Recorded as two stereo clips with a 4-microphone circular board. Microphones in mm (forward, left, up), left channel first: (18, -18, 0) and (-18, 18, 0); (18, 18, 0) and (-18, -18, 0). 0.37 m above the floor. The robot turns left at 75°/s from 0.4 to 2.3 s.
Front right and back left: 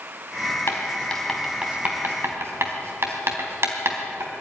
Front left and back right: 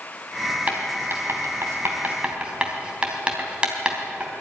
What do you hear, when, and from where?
0.7 s writing: 85° right, 3 m; by 4.3 s 155° left, 3 m